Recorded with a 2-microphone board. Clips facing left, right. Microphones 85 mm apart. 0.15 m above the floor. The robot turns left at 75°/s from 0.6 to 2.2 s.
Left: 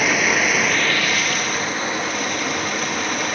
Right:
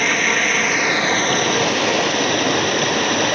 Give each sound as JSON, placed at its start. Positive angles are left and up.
{"t": 0.0, "sound": "running water", "azimuth_deg": 5, "distance_m": 0.8}